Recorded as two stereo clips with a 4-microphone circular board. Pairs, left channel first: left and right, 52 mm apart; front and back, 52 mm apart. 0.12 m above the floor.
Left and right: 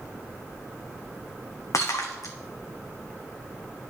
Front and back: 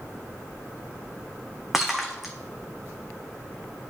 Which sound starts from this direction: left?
Breaking glass, at 1.7 s.